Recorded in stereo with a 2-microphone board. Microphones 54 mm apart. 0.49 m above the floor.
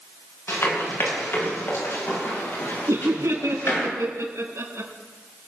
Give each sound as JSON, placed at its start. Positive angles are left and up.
{"t": 0.5, "sound": "running footsteps", "side_deg": 50, "distance_m": 7.0}
{"t": 2.9, "sound": "laughter", "side_deg": -70, "distance_m": 4.5}